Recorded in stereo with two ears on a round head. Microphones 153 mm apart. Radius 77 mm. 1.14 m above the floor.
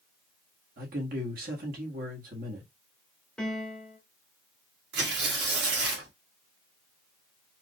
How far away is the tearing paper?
About 1.6 m.